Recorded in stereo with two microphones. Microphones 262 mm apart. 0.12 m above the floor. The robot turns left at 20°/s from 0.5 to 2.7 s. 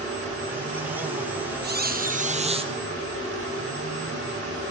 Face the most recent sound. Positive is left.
turn(degrees=-20)  # may be behind; listen again after turning